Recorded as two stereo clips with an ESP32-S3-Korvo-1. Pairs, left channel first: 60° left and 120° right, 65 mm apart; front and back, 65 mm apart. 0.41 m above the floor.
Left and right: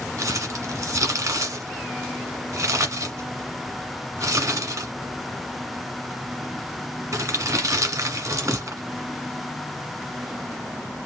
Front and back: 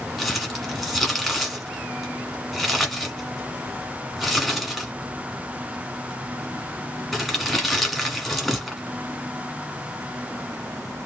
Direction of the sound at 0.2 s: 90° right.